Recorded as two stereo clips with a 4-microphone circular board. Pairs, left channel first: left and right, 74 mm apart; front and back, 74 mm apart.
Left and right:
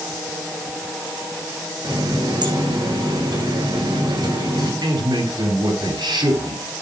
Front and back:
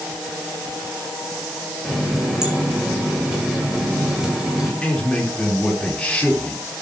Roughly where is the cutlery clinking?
I don't hear cutlery clinking.